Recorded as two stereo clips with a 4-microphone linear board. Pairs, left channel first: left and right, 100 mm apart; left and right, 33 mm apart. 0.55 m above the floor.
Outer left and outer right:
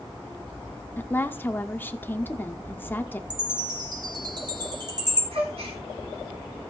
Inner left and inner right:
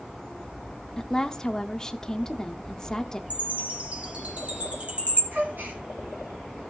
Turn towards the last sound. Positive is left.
turn(degrees=-75)  # may be behind; listen again after turning